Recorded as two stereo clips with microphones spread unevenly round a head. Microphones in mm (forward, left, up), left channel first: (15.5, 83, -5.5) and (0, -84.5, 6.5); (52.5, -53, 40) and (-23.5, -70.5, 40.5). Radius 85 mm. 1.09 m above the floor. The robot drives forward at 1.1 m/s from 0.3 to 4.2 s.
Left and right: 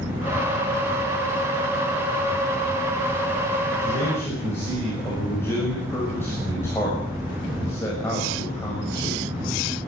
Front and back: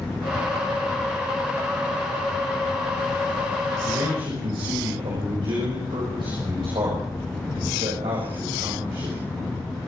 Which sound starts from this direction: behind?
A man speaking, at 3.8 s.